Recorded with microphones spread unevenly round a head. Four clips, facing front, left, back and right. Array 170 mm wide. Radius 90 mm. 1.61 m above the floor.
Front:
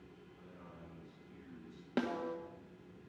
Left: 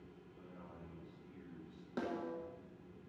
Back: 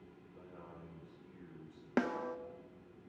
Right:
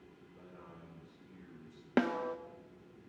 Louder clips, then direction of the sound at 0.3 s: Right 1 dB, back 4 dB; 170° right.